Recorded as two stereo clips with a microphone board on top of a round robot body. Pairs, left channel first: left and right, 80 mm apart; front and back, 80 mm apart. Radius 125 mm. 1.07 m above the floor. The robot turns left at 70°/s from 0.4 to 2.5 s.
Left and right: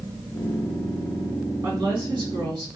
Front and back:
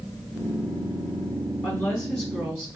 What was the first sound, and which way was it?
A woman speaking, 60° right.